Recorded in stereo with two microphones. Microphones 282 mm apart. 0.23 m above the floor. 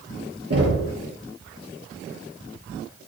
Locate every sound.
0.5 s knocking: 55° right (ahead or behind), 4.5 m